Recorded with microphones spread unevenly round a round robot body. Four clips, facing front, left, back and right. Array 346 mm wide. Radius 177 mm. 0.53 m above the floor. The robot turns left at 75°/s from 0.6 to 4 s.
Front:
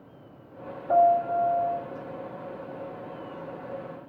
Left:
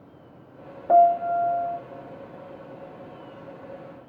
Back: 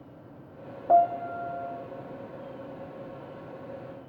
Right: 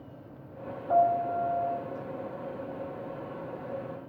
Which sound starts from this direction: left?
A piano, at 0.9 s.